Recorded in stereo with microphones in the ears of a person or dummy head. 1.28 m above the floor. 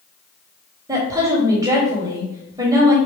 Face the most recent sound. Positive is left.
turn(degrees=-25)  # may be behind; listen again after turning